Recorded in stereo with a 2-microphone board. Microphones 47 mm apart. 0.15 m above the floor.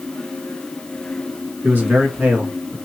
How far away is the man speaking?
About 2 m.